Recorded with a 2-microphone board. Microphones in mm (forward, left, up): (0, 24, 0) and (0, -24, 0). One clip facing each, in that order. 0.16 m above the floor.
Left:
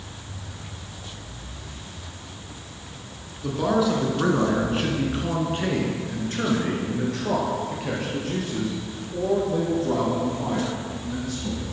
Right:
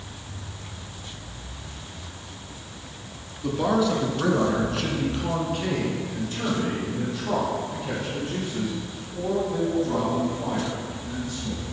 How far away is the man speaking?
About 1.8 m.